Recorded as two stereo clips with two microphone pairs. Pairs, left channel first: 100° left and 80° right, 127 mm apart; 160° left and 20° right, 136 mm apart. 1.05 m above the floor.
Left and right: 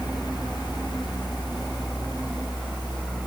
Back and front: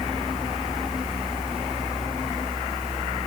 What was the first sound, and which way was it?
Only background noise.